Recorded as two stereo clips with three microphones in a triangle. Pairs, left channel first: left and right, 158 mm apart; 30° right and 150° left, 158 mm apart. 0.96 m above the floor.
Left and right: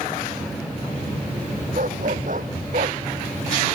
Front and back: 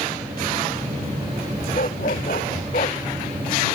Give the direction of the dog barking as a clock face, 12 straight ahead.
2 o'clock.